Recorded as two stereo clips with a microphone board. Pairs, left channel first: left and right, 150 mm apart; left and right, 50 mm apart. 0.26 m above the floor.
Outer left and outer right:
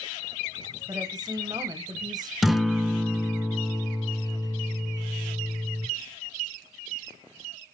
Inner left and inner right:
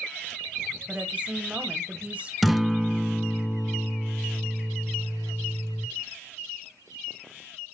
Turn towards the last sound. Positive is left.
turn(degrees=0)  # may be behind; listen again after turning